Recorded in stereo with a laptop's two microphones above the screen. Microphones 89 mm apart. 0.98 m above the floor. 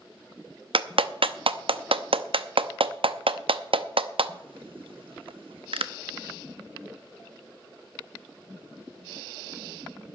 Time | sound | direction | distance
0.7 | a clap | 80° right | 0.7 m